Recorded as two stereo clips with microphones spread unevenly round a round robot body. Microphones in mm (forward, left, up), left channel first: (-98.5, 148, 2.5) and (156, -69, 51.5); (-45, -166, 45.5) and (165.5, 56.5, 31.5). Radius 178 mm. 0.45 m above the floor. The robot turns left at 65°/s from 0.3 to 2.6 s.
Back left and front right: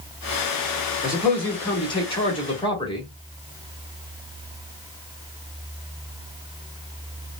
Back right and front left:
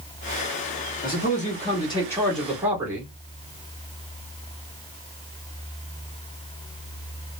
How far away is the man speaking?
About 1.2 m.